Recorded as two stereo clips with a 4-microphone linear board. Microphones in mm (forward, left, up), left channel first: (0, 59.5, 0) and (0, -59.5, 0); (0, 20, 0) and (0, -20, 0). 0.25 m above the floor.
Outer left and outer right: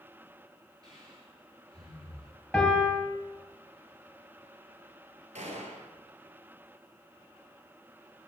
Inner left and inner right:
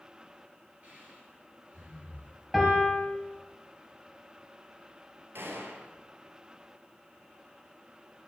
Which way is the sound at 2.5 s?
5° left (ahead or behind).